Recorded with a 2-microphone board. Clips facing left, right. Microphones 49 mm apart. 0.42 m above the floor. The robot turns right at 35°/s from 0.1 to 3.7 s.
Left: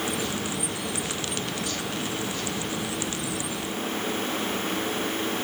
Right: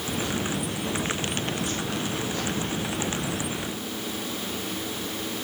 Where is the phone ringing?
No phone ringing in this recording.